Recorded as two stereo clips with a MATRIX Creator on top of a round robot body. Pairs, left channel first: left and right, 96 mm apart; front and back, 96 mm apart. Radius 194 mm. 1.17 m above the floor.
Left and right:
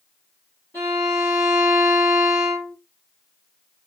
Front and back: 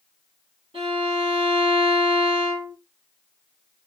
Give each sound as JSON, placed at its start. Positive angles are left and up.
{"t": 0.7, "sound": "a violin", "azimuth_deg": 165, "distance_m": 0.7}